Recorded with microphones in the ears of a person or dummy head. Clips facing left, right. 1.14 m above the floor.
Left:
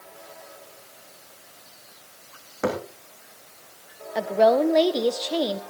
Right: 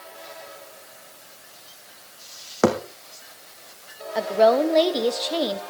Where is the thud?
75° right (ahead or behind), 4 m.